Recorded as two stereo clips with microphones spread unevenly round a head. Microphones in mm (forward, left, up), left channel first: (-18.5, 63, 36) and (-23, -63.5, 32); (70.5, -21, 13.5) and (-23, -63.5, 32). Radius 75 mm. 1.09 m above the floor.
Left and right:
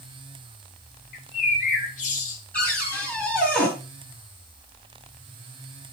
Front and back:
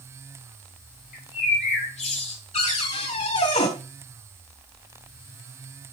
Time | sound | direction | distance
1.1 | a bird | 50° left | 1.7 m
2.5 | a cupboard door | 5° left | 3 m